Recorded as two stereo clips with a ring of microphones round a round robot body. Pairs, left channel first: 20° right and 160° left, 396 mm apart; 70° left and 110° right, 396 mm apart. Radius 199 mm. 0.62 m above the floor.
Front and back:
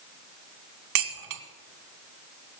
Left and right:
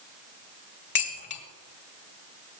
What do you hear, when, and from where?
0.9 s dishes clattering: 130° left, 1.5 m